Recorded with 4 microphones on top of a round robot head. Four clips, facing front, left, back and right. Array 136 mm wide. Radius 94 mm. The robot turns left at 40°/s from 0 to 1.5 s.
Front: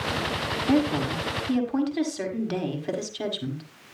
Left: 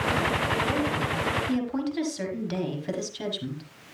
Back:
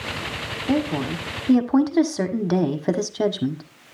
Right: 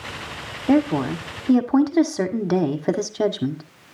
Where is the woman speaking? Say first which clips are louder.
Right 8 dB, back 1 dB; 95° right, 1.6 m; by 3.6 s 125° right, 1.6 m.